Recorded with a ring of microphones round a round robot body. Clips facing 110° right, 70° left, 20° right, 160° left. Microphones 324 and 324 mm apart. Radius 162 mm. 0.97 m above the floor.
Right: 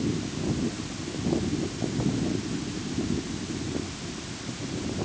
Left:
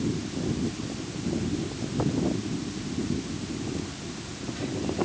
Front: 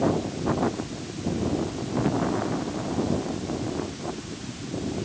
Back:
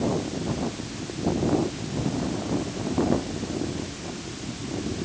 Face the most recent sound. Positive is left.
No sound to turn to.